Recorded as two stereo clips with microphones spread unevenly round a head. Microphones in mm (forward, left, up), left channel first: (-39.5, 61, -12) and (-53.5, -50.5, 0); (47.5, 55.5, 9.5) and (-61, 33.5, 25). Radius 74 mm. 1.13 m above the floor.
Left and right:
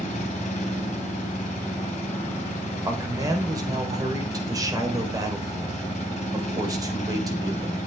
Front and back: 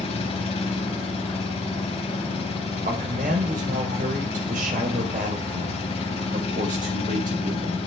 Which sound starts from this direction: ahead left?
An engine running, at 0.0 s.